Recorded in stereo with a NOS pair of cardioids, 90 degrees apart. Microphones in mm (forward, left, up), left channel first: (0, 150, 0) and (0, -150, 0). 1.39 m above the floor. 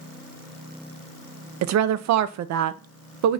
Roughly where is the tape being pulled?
I don't hear tape being pulled.